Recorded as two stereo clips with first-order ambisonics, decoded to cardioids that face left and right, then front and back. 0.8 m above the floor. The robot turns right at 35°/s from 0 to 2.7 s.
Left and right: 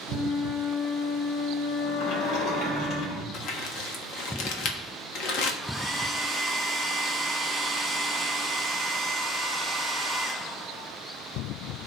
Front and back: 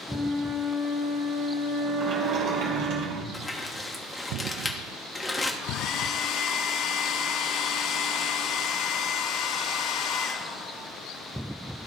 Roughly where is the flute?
Left.